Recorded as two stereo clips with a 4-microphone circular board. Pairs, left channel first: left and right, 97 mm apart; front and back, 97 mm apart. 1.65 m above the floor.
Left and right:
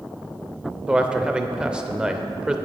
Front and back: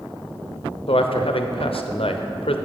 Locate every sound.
0.9 s a man speaking: 10° right, 0.5 m